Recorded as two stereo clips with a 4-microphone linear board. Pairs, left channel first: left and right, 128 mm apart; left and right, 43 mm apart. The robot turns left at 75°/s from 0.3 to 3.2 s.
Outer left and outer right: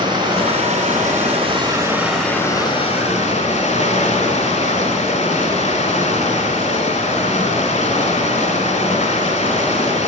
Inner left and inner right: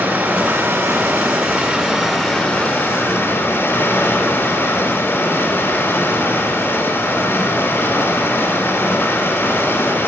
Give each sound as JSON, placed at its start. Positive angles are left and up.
{"t": 0.0, "sound": "running water", "azimuth_deg": -40, "distance_m": 1.6}